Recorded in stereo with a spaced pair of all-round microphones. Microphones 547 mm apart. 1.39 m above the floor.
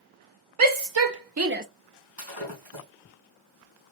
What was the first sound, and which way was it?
A shout, 70° right (ahead or behind).